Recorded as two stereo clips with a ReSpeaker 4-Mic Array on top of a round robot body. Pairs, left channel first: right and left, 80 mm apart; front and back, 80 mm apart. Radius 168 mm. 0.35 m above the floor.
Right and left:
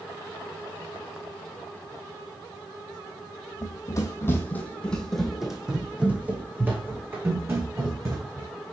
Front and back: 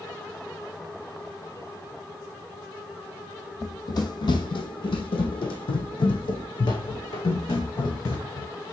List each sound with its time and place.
3.6 s running footsteps: 45° right, 1.2 m; by 8.5 s 35° left, 3 m